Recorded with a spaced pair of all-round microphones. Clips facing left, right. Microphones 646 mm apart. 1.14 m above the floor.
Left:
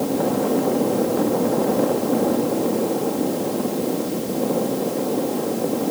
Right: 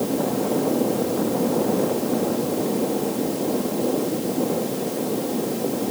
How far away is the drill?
No drill in this recording.